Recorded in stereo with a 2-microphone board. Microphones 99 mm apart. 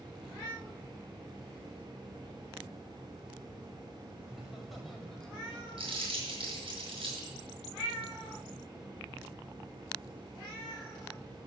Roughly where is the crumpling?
Right.